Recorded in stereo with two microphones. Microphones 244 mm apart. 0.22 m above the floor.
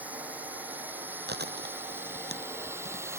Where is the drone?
5° right (ahead or behind); by 3.2 s 10° right (ahead or behind).